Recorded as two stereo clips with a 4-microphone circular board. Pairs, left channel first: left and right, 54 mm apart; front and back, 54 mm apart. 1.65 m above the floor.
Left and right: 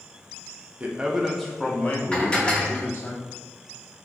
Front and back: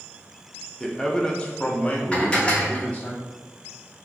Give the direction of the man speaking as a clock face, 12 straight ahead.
3 o'clock.